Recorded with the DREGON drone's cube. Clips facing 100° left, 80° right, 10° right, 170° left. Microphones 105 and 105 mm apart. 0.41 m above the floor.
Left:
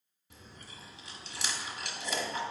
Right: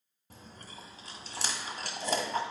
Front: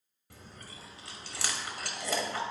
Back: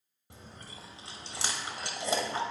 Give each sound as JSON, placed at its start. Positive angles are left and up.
{"t": 0.3, "sound": "chewing", "azimuth_deg": -125, "distance_m": 1.2}